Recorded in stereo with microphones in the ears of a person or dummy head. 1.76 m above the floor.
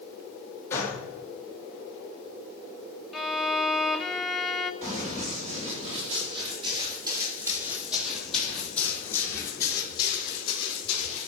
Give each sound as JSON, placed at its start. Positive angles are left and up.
{"t": 0.7, "sound": "a gunshot", "side_deg": 20, "distance_m": 2.0}
{"t": 3.1, "sound": "a violin", "side_deg": 5, "distance_m": 0.5}
{"t": 4.8, "sound": "running footsteps", "side_deg": -50, "distance_m": 4.0}